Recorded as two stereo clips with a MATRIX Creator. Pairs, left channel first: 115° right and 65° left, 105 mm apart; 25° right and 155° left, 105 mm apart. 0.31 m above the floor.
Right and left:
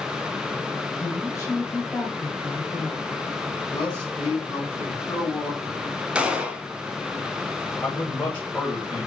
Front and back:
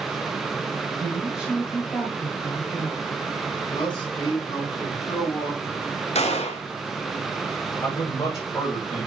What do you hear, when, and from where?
1.0 s a woman speaking: 135° right, 1.1 m; by 3.2 s 5° right, 1.1 m
3.7 s a man speaking: 45° right, 1.9 m
6.2 s a gunshot: 15° right, 0.6 m
7.8 s a man speaking: 45° right, 1.4 m